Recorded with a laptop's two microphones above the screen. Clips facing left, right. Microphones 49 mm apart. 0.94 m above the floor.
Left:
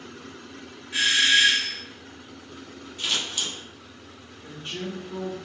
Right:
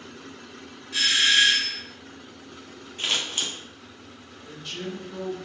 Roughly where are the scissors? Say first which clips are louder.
Right 1 dB; right.